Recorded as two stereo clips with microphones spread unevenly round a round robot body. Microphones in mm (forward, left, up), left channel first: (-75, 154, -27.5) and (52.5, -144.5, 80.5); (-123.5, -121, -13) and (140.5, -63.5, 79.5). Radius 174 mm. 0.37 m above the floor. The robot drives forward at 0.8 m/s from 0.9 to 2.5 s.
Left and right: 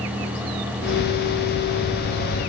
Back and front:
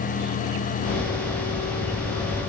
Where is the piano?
No piano in this recording.